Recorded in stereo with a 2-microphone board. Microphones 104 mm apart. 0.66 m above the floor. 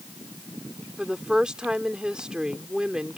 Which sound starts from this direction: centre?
A woman speaking, at 1.0 s.